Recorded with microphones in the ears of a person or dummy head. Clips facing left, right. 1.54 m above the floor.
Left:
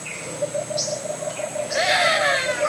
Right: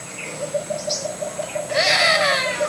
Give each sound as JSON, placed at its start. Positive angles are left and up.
{"t": 1.7, "sound": "a scream", "side_deg": -60, "distance_m": 7.0}